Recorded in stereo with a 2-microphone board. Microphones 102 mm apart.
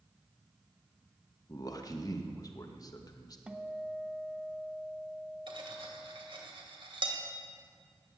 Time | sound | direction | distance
1.5 | a man speaking | 40° left (ahead or behind) | 1.2 m
3.5 | a guitar | 10° right (ahead or behind) | 0.9 m
5.5 | cutlery clinking | 55° right (ahead or behind) | 2 m